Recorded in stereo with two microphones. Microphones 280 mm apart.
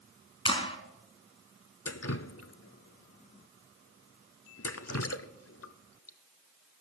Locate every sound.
0.5 s a clap: 20° left (ahead or behind), 1.5 m
1.9 s dripping: 60° left (ahead or behind), 0.6 m